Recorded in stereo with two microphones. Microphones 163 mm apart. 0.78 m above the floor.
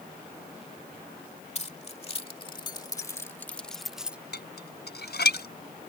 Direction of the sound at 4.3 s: 85° left.